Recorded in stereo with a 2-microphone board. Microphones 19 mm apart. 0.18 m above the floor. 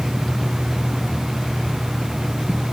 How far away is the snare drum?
No snare drum in this recording.